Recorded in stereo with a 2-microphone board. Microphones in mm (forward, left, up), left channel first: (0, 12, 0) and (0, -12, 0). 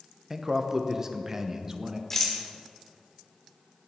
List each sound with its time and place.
0.3 s a man speaking: 15° right (ahead or behind), 0.8 m
2.1 s a rattle: 15° left (ahead or behind), 1.8 m